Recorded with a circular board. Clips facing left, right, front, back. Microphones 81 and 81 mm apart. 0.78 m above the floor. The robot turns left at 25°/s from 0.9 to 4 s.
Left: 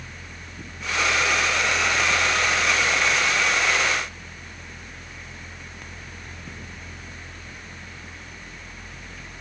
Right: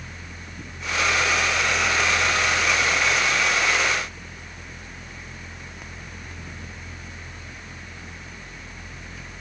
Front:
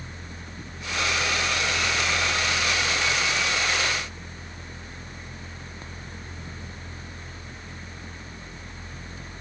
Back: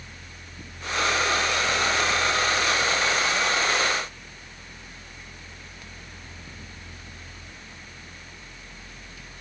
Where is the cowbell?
No cowbell in this recording.